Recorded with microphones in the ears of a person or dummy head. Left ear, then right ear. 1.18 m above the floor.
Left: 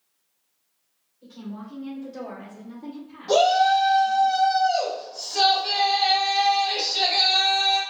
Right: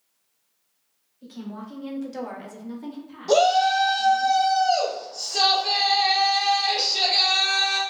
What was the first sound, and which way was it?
A woman speaking, 55° right (ahead or behind).